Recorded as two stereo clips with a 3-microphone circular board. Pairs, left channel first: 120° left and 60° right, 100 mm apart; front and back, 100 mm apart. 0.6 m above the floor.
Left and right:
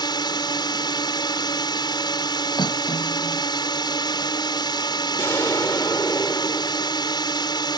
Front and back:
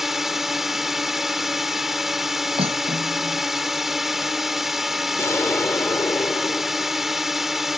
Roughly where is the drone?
Left.